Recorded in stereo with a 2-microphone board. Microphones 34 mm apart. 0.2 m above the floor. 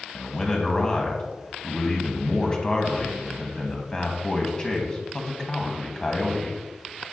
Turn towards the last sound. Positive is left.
turn(degrees=20)  # may be behind; listen again after turning